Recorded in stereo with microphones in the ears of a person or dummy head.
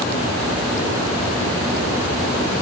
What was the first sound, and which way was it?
Only background noise.